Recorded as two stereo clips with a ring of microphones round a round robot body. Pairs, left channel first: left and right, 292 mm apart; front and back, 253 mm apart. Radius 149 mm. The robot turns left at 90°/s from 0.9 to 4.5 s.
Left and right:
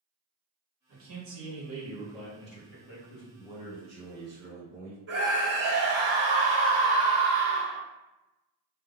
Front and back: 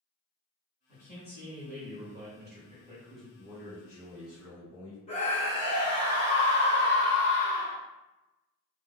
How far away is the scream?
About 1.2 m.